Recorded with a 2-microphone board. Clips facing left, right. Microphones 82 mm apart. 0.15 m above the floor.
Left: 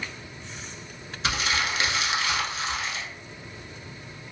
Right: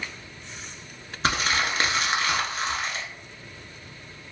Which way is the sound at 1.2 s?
40° right (ahead or behind).